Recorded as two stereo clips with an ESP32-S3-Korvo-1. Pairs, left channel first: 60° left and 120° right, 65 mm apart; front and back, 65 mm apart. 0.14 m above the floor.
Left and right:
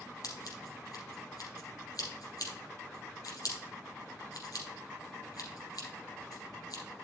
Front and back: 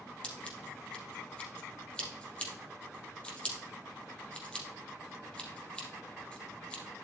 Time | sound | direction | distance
0.2 | scissors | 70° left | 3.5 m